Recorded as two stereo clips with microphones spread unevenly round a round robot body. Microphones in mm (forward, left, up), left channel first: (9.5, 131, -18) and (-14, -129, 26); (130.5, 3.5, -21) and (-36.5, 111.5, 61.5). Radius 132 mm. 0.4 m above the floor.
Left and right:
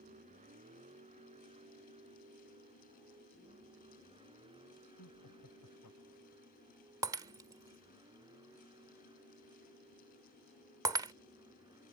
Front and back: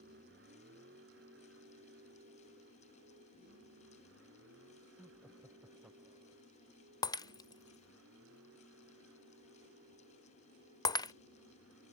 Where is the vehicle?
160° right; by 11.9 s 175° right.